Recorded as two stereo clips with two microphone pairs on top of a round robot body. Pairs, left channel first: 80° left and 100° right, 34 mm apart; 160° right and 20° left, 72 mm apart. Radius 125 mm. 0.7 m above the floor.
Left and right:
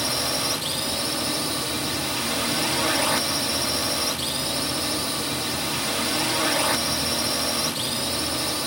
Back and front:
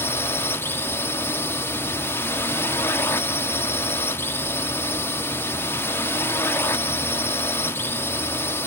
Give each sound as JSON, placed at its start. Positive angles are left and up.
{"t": 0.0, "sound": "a drone", "azimuth_deg": 170}